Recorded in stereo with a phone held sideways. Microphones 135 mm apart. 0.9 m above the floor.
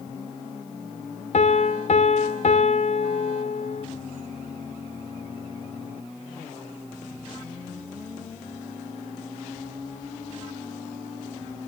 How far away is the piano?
About 0.9 m.